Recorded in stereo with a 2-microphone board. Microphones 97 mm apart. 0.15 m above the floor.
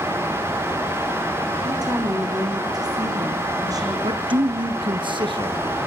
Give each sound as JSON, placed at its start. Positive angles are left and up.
{"t": 1.6, "sound": "a woman speaking", "side_deg": -40, "distance_m": 7.5}
{"t": 4.0, "sound": "a man speaking", "side_deg": -55, "distance_m": 2.0}